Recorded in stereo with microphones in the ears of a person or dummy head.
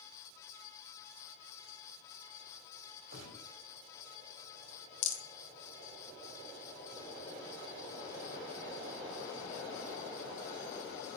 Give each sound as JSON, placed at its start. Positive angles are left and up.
{"t": 3.1, "sound": "a gunshot", "side_deg": -60, "distance_m": 5.5}
{"t": 5.0, "sound": "a rattle", "side_deg": 50, "distance_m": 1.0}